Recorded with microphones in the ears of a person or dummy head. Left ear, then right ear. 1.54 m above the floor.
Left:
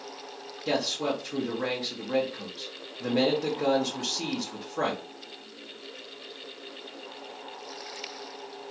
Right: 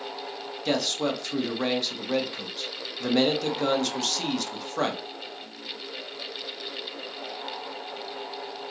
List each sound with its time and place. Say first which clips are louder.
0.7 s a man speaking: right 2 dB; 75° right (ahead or behind), 1.4 m